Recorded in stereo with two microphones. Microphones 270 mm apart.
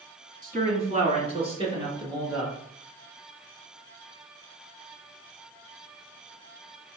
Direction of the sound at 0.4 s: 30° right (ahead or behind).